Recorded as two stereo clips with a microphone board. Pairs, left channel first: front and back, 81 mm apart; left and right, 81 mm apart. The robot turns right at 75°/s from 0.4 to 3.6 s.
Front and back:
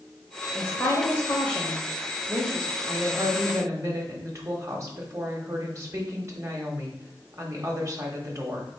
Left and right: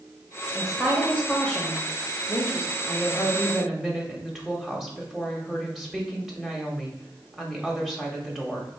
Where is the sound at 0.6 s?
15° right, 0.9 m; by 2.8 s 150° left, 0.9 m.